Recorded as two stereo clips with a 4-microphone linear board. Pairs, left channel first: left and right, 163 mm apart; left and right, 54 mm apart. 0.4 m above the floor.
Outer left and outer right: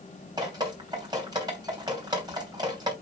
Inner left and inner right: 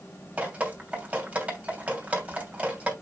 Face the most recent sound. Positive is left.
turn(degrees=-25)  # may be behind; listen again after turning